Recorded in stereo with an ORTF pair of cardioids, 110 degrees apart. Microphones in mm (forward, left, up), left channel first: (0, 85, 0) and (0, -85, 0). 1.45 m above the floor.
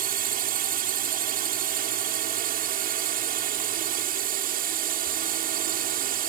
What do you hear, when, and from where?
0.0 s a drone: 60° right